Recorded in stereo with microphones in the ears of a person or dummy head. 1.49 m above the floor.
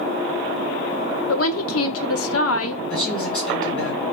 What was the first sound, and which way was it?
A woman speaking, 70° left (ahead or behind).